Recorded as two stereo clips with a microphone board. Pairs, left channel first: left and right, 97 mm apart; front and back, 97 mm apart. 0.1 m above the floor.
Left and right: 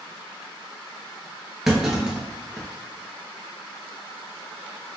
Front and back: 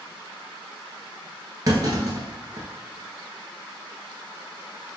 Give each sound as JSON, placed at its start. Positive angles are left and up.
{"t": 1.7, "sound": "a clunk", "azimuth_deg": -175, "distance_m": 1.1}